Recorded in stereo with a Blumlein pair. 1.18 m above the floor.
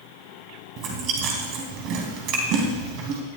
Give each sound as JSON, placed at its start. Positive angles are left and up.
{"t": 0.8, "sound": "chewing", "azimuth_deg": -40, "distance_m": 3.0}